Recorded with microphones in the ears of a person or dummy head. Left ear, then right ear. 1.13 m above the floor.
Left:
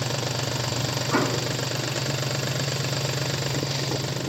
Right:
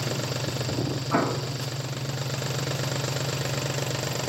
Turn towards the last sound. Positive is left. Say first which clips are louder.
# left 1 dB
turn(degrees=-20)  # may be behind; listen again after turning